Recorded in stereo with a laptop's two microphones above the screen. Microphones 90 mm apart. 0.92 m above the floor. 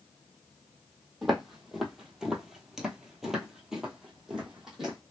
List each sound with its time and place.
1.2 s footsteps: centre (ahead or behind), 1.2 m; by 5.0 s 5° right (ahead or behind), 1.4 m